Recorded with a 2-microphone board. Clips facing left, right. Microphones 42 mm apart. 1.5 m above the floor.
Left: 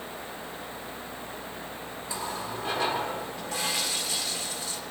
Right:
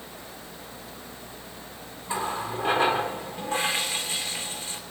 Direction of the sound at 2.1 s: 30° right (ahead or behind).